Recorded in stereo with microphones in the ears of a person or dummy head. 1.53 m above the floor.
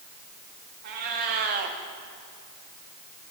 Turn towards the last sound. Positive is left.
turn(degrees=-40)  # may be behind; listen again after turning